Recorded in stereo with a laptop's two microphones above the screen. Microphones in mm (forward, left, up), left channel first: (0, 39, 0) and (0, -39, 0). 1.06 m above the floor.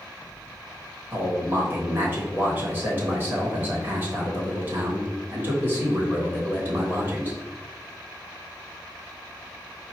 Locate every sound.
1.1 s a man speaking: 25° right (ahead or behind), 1.0 m